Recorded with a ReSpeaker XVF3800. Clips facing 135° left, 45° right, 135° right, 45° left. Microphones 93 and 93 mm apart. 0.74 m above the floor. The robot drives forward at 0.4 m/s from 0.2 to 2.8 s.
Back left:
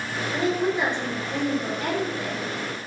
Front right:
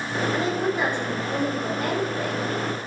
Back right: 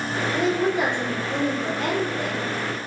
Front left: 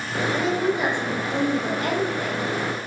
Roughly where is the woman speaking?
Behind right.